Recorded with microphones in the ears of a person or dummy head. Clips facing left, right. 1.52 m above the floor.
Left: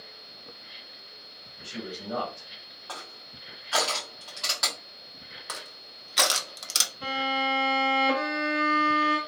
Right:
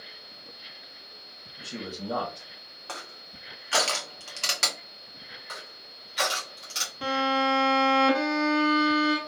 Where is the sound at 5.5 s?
70° left (ahead or behind), 0.6 m.